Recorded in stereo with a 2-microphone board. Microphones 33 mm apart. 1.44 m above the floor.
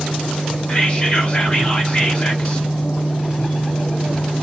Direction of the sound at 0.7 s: 30° left (ahead or behind).